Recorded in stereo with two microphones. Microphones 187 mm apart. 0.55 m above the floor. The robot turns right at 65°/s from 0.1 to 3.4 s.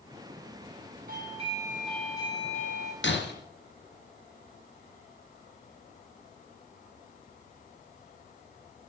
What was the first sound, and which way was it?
A doorbell, 50° right.